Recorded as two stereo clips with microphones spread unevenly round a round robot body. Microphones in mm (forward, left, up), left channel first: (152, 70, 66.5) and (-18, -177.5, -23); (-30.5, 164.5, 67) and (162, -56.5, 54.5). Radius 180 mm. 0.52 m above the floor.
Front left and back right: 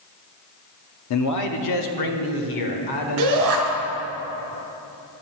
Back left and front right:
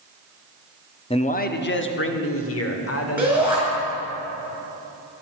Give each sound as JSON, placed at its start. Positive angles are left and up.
{"t": 1.1, "sound": "a man speaking", "azimuth_deg": 70, "distance_m": 0.9}
{"t": 3.2, "sound": "a shout", "azimuth_deg": -135, "distance_m": 3.0}